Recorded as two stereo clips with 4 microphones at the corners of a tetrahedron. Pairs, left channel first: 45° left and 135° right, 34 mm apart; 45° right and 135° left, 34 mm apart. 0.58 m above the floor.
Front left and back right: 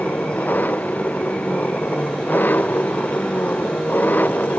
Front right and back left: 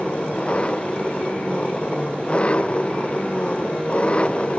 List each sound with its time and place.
0.0 s an engine running: 15° left